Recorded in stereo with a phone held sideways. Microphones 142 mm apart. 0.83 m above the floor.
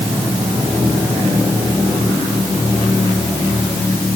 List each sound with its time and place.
Only background noise.